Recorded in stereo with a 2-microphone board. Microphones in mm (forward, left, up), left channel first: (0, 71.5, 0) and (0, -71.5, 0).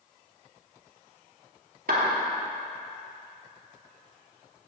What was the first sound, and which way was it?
A clap, 80° right.